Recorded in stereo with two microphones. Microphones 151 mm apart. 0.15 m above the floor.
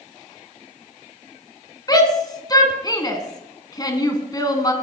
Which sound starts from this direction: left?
A shout, at 1.9 s.